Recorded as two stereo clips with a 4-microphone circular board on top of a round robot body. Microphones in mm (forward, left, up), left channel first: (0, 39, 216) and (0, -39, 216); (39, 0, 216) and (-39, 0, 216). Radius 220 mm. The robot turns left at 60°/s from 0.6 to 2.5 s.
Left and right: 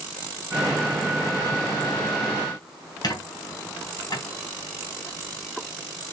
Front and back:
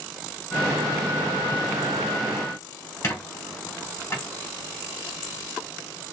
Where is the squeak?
60° left, 2.5 m.